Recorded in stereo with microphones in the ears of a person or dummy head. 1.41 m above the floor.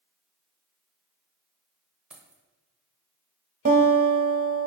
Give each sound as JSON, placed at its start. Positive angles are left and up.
{"t": 2.1, "sound": "keys jangling", "side_deg": -10, "distance_m": 0.7}
{"t": 3.6, "sound": "a guitar", "side_deg": -40, "distance_m": 0.6}